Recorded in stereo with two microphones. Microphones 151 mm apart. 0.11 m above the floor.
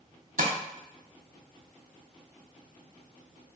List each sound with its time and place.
0.4 s tapping: 75° right (ahead or behind), 1.0 m